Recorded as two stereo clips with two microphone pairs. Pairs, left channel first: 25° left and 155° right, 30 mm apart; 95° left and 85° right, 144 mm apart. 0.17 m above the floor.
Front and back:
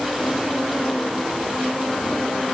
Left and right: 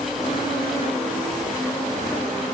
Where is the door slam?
No door slam in this recording.